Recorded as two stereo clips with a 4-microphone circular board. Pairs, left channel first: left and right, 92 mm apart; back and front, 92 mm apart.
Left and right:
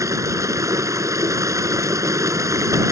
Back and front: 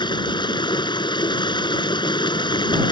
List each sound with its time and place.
0.0 s running water: 145° right